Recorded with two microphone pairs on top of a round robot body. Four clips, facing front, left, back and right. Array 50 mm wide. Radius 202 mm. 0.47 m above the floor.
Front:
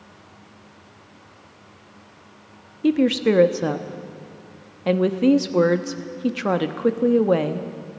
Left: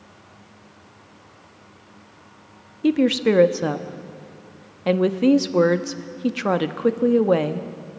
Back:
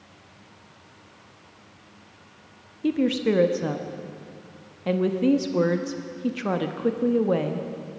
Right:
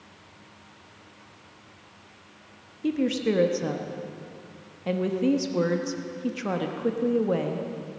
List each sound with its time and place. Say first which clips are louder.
2.8 s a woman speaking: left 7 dB, front 4 dB; 65° left, 1.2 m